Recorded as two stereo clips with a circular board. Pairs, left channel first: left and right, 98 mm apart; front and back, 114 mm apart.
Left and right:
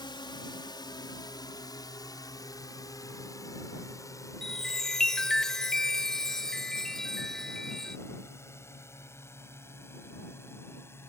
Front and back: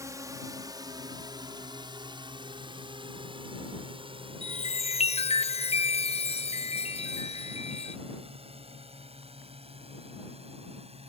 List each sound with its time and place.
0.0 s a drone: 120° left; by 11.1 s 155° left
4.4 s a chime: 5° left